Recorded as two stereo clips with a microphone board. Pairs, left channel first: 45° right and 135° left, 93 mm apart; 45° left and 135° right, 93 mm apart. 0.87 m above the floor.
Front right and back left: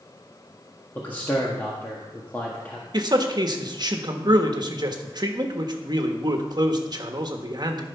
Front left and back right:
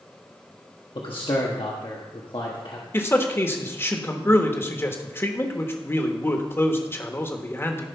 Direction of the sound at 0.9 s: 25° left.